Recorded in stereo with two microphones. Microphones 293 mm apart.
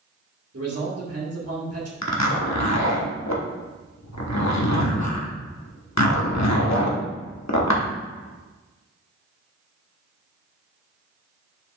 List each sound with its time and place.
0.5 s a man speaking: 55° right (ahead or behind), 2 m
2.0 s a zipper: 70° left (ahead or behind), 1.0 m